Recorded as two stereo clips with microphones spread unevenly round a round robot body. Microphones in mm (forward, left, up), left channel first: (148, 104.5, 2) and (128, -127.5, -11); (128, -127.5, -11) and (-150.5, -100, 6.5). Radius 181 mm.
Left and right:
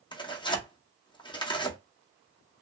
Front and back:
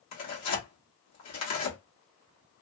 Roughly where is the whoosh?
I don't hear a whoosh.